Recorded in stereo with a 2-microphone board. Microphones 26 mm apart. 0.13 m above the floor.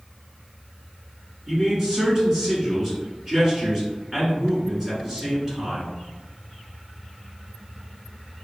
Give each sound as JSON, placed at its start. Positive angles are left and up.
{"t": 1.5, "sound": "a man speaking", "side_deg": -25, "distance_m": 1.2}